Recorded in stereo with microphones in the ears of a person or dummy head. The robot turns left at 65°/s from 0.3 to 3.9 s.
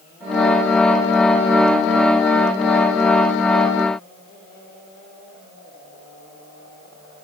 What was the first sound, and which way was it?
Only background noise.